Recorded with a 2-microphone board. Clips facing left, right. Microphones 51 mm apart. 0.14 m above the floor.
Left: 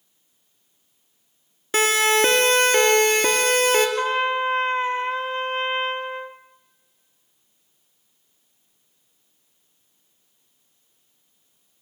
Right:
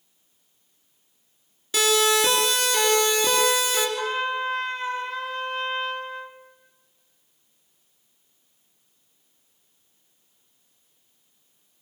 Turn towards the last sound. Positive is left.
turn(degrees=35)  # may be behind; listen again after turning